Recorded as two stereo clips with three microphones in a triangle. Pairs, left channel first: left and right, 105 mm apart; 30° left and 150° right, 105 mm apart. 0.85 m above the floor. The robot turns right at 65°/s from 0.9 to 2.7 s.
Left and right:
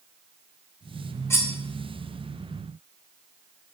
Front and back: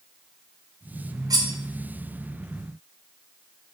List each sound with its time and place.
1.3 s cutlery clinking: 155° left, 0.6 m; by 1.5 s 170° left, 0.6 m